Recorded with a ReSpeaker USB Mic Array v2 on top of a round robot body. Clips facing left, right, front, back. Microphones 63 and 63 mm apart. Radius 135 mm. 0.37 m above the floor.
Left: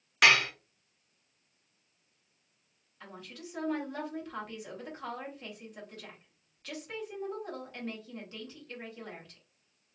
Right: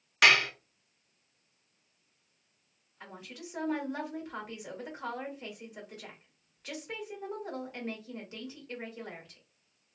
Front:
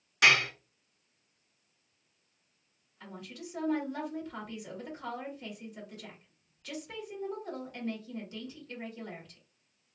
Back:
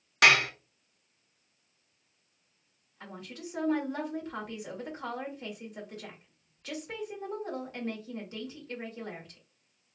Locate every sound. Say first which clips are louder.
0.2 s dishes clattering: even, back 2 dB; straight behind, 1.1 m
3.0 s a woman speaking: even, back 2 dB; 155° right, 1.7 m